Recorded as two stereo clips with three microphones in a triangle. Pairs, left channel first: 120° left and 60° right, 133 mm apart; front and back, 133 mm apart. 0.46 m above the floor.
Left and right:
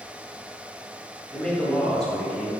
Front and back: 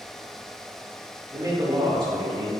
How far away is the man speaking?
About 1.0 m.